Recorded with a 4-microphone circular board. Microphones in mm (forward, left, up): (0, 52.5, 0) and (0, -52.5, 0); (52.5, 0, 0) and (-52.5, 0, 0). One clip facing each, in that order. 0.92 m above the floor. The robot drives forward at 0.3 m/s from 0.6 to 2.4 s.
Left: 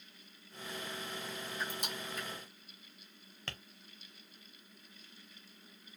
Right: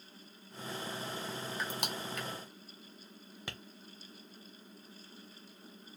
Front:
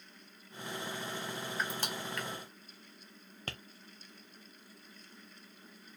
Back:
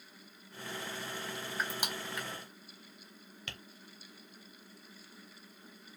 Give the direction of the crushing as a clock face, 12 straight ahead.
3 o'clock.